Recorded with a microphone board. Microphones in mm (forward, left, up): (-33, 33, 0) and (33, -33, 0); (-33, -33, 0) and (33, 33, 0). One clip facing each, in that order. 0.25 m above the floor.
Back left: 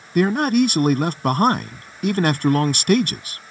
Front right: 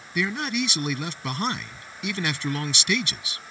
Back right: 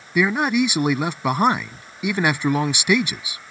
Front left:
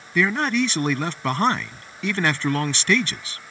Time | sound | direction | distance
0.1 | a man speaking | 150° left | ?